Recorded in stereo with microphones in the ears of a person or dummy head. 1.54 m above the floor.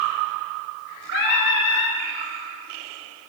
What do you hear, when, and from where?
1.1 s singing: 60° left (ahead or behind), 0.9 m